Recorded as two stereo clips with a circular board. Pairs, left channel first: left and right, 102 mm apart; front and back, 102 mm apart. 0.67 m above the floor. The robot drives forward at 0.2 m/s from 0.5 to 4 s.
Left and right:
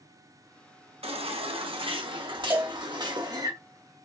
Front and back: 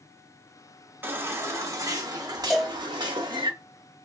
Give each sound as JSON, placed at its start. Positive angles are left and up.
{"t": 1.0, "sound": "a baby crying", "azimuth_deg": -110, "distance_m": 0.6}
{"t": 2.5, "sound": "a cowbell", "azimuth_deg": -85, "distance_m": 0.6}